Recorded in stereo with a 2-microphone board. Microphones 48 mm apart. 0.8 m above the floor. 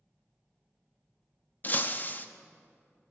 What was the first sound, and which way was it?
Breaking glass, 40° left (ahead or behind).